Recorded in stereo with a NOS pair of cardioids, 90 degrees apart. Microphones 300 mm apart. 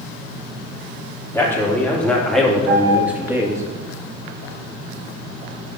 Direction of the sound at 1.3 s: 10° left.